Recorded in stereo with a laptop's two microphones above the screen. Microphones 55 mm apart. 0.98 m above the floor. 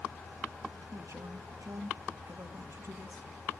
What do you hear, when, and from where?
0.9 s a man speaking: 65° right (ahead or behind), 1.7 m